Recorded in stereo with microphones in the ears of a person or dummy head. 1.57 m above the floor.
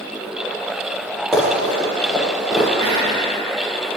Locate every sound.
1.3 s running footsteps: centre (ahead or behind), 3 m; by 2.6 s 5° right (ahead or behind), 4 m
2.8 s whispering: 40° right (ahead or behind), 3 m